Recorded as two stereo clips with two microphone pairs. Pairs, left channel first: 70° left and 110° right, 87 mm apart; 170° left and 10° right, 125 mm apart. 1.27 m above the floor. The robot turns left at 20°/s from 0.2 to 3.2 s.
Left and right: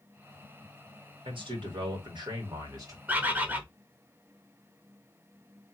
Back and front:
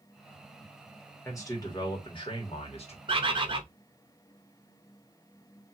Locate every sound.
1.2 s a man speaking: 125° right, 1.8 m; by 3.0 s 160° right, 1.8 m
3.1 s a bird: 40° right, 0.7 m; by 3.6 s 45° right, 0.7 m